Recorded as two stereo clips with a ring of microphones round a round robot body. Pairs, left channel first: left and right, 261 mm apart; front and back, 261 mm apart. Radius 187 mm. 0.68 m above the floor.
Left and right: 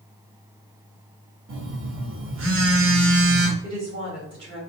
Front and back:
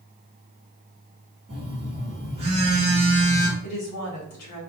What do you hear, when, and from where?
1.5 s a phone buzzing: 115° right, 1.1 m
3.6 s a woman speaking: 15° right, 1.6 m